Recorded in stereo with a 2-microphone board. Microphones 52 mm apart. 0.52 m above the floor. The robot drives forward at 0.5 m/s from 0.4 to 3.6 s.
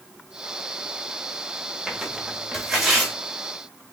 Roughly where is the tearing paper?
Centre.